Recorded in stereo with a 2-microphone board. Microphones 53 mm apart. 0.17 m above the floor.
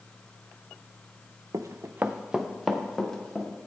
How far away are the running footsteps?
About 0.7 m.